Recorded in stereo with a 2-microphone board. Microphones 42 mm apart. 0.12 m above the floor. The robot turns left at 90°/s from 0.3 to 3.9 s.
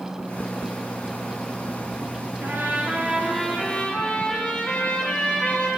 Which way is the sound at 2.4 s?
85° right.